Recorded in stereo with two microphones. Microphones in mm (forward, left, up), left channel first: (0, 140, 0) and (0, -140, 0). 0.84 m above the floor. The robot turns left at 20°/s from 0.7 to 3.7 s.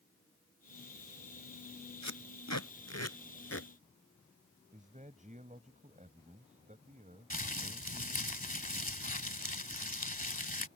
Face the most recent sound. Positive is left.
turn(degrees=30)  # may be behind; listen again after turning